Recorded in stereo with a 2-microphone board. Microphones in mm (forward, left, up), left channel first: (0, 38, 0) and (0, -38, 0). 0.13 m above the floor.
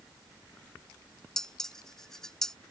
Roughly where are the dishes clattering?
Centre.